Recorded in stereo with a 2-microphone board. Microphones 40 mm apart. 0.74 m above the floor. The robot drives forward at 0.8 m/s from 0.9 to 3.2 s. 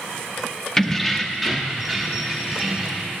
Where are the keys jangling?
10° left (ahead or behind), 0.5 m; by 3.1 s centre (ahead or behind), 2 m.